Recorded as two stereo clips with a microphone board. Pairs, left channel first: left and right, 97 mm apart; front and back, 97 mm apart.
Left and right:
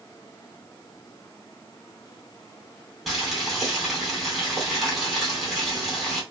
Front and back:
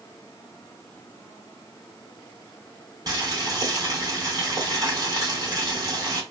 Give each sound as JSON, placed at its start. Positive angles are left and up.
{"t": 3.1, "sound": "boiling", "azimuth_deg": 180, "distance_m": 2.0}